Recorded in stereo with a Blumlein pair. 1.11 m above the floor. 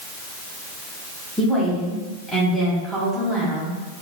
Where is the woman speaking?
Straight ahead, 1.6 m.